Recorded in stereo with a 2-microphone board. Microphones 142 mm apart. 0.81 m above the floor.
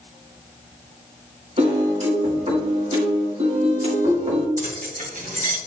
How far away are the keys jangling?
About 1.4 m.